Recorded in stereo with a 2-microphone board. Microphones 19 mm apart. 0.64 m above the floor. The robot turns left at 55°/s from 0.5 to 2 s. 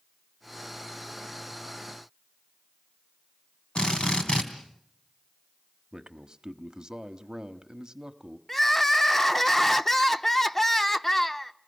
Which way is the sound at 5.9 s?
40° right (ahead or behind).